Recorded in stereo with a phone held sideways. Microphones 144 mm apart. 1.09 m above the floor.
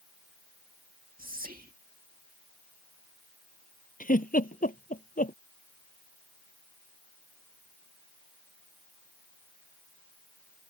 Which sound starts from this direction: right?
Whispering, at 1.2 s.